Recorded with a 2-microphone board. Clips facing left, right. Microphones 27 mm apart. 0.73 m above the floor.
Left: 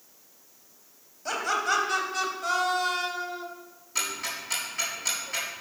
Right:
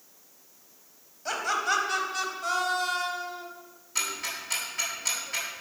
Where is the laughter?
5° right (ahead or behind), 4 m; by 3.5 s 15° left (ahead or behind), 2.5 m.